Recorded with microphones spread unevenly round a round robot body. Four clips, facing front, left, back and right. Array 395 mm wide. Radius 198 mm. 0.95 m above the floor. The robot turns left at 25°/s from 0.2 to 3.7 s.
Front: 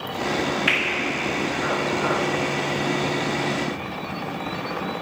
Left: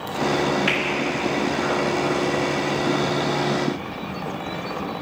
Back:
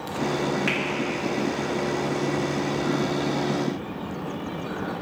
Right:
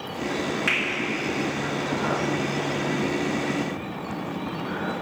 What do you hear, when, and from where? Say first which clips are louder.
0.7 s a finger snap: left 4 dB, front 2 dB; 145° right, 2 m; by 0.8 s 150° right, 2 m